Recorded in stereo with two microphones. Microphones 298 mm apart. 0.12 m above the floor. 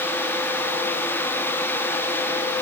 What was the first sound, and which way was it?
Only background noise.